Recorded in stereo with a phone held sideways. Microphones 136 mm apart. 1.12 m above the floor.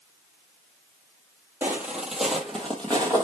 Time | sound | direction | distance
1.6 | footsteps | 15° right (ahead or behind) | 1.2 m